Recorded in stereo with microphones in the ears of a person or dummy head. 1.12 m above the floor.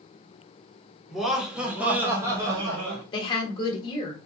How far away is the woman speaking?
About 1.2 m.